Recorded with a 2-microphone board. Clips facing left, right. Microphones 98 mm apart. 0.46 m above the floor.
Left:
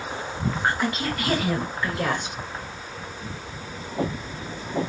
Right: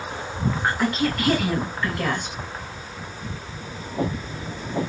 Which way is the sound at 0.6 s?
Centre (ahead or behind).